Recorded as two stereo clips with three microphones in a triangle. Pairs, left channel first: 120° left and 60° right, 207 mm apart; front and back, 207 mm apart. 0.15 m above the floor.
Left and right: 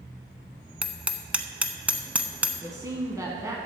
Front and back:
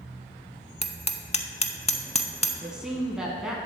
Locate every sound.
0.8 s hammering: 20° left, 0.5 m
2.6 s a man speaking: 100° right, 1.1 m